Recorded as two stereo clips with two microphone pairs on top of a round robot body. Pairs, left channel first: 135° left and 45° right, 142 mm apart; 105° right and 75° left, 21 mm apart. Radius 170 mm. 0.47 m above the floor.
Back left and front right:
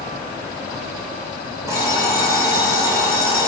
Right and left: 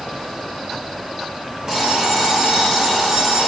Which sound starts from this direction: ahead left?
An alarm clock, at 1.7 s.